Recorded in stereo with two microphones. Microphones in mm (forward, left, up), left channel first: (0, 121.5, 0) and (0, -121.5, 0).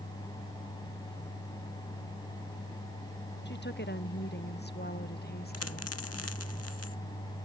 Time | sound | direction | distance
3.5 | a woman speaking | 45° left (ahead or behind) | ?
5.5 | a dropped coin | 75° left (ahead or behind) | ?